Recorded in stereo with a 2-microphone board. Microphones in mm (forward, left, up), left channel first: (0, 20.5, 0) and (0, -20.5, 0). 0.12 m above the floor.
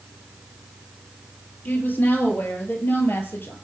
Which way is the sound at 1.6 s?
45° left (ahead or behind).